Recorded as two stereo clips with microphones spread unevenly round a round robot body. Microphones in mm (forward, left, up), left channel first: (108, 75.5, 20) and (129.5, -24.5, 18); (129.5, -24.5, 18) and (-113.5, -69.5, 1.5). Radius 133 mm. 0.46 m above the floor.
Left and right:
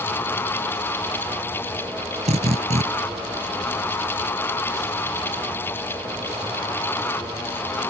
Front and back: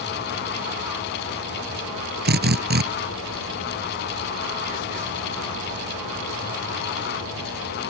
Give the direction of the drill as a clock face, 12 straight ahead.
4 o'clock.